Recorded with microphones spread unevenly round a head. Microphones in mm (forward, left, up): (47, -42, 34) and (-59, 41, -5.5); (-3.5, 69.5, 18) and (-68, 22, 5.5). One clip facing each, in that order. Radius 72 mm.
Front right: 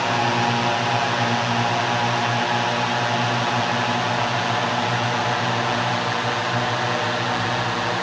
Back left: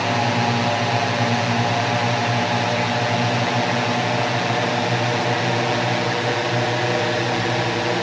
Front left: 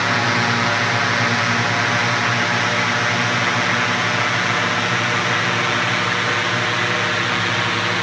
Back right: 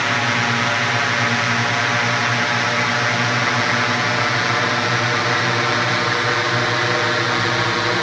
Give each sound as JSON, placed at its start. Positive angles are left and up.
{"t": 0.0, "sound": "a drone", "azimuth_deg": 120}